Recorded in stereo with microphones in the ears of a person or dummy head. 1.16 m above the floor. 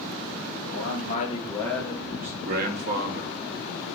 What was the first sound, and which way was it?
A man speaking, 70° left (ahead or behind).